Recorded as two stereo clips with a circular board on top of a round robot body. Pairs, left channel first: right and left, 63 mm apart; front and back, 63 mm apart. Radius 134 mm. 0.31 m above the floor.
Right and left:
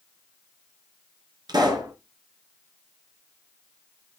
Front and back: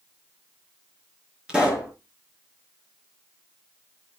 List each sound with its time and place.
1.5 s a pop: 105° left, 3.5 m